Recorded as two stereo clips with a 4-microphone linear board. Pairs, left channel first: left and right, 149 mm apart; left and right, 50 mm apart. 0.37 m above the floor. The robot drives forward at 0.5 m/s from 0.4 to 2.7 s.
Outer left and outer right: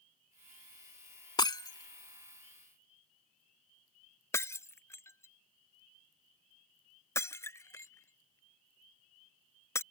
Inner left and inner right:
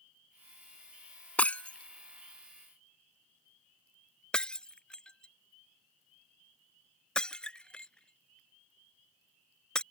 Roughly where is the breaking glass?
Left.